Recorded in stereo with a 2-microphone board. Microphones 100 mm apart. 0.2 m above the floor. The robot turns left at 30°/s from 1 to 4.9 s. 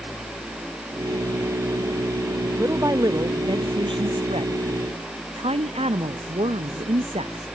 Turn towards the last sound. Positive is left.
turn(degrees=-95)